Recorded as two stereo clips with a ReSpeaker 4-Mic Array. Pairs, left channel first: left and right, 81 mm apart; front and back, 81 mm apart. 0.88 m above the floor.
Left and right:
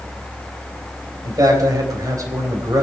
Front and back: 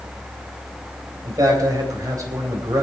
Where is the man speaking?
135° right, 3.5 m.